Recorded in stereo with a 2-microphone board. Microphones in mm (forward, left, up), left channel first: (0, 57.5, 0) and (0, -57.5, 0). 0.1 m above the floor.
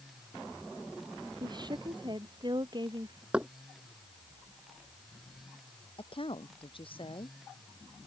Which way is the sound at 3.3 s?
10° right (ahead or behind).